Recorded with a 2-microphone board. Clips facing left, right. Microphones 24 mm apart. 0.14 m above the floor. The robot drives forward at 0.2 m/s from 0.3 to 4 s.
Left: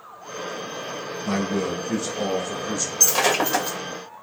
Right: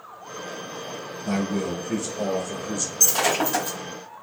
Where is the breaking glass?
45° left (ahead or behind), 2.5 m.